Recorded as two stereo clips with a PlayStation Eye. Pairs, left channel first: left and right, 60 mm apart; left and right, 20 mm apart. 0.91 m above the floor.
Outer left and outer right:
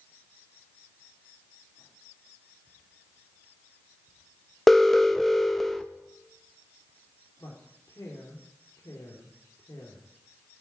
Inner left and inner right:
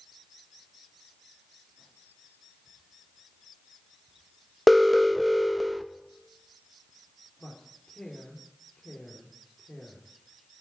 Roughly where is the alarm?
Centre.